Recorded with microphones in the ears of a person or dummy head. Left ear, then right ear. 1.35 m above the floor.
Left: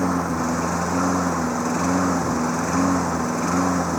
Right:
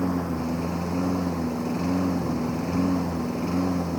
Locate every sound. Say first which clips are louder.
0.0 s a lawn mower: left 6 dB; 55° left (ahead or behind)